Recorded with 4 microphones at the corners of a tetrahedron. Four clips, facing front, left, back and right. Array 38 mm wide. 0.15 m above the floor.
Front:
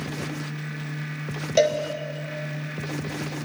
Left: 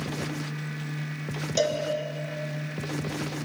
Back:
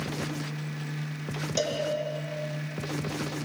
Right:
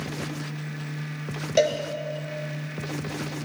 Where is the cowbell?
35° right, 2 m.